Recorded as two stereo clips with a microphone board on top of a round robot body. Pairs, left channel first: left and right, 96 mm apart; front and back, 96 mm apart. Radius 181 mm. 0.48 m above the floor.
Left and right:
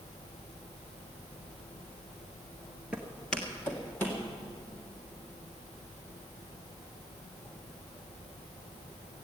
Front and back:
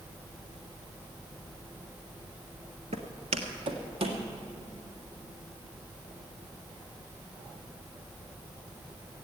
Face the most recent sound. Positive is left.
turn(degrees=155)